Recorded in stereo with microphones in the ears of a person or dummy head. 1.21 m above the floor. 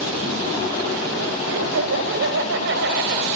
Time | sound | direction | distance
1.5 | laughter | 70° right (ahead or behind) | 6 m